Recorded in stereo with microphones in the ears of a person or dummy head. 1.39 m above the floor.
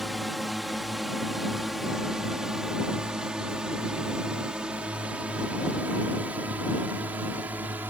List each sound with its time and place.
0.0 s a drone: centre (ahead or behind); by 7.9 s 10° right (ahead or behind)